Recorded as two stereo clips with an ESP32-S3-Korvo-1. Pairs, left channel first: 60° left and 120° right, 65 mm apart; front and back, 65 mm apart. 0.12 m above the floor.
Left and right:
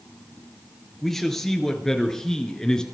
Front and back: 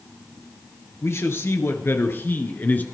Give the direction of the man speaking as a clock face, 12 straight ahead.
1 o'clock.